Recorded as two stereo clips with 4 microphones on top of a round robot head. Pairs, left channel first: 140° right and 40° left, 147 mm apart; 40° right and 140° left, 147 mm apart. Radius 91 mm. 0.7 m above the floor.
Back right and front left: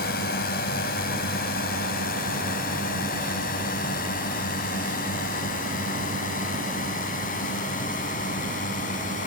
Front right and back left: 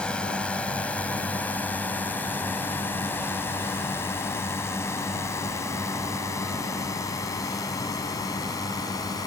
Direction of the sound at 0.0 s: 120° right.